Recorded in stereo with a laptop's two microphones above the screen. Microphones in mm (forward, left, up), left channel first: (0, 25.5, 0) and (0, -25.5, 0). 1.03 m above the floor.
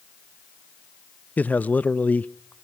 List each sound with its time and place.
1.4 s a man speaking: 35° left (ahead or behind), 0.5 m